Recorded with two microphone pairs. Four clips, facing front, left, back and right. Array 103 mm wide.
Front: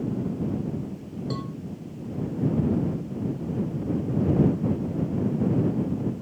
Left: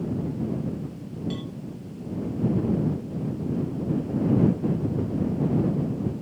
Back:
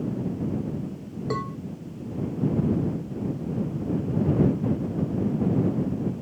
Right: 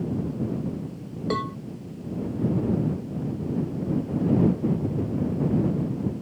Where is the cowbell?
120° right.